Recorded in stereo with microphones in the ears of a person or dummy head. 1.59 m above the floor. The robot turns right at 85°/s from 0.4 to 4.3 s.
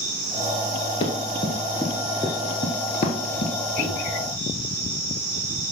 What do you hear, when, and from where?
1.0 s running footsteps: 25° left (ahead or behind), 1.7 m; by 3.5 s 40° left (ahead or behind), 2 m
3.8 s a microwave: 45° right (ahead or behind), 1.4 m; by 3.9 s 40° right (ahead or behind), 1.4 m